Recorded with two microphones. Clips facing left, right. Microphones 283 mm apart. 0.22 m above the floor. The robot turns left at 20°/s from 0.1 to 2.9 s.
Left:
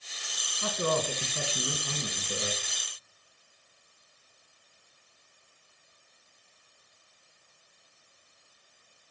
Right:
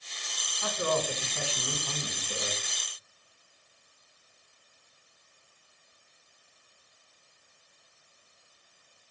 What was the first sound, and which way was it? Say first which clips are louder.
A man speaking: left 1 dB; 60° left.